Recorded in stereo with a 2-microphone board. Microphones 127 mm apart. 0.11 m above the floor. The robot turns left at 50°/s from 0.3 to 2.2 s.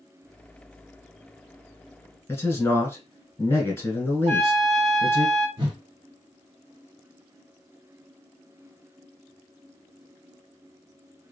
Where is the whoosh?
40° right (ahead or behind), 1.2 m.